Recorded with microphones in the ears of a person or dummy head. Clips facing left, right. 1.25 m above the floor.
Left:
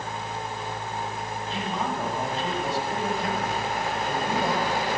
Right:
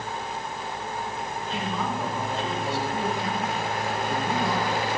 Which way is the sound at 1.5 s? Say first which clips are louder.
Even; 35° left (ahead or behind).